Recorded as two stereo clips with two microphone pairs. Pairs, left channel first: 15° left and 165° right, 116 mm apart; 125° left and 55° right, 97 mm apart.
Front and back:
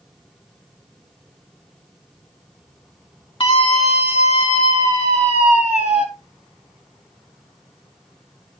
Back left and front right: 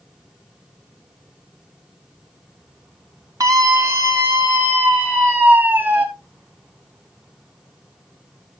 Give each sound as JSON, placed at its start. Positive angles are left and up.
{"t": 3.4, "sound": "a scream", "azimuth_deg": -10, "distance_m": 2.5}